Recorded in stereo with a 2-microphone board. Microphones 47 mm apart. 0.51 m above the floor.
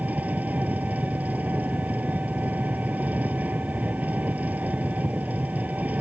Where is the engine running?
35° right (ahead or behind).